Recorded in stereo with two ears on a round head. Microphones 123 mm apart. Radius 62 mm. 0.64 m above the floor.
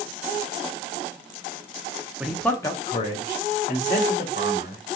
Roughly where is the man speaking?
Centre.